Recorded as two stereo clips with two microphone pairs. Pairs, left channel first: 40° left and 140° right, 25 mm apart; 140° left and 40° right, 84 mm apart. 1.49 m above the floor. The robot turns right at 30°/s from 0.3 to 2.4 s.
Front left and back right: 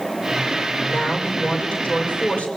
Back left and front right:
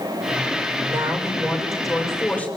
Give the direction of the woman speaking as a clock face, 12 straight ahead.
11 o'clock.